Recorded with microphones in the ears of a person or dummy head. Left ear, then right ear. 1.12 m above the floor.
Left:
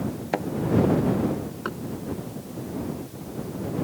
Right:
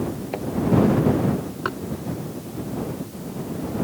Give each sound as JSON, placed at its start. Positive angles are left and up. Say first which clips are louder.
{"t": 0.3, "sound": "a thud", "louder": "left 5 dB", "side_deg": 55}
{"t": 1.6, "sound": "knocking", "louder": "right 6 dB", "side_deg": -15}